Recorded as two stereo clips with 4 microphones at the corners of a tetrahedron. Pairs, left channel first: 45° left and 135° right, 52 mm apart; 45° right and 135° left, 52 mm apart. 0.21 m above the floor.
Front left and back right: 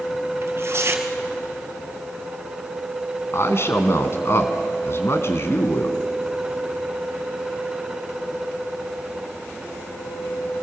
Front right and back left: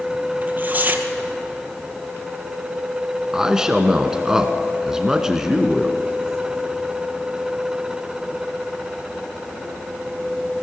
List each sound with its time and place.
0.4 s tearing paper: 175° right, 2 m
3.3 s a man speaking: 60° left, 2 m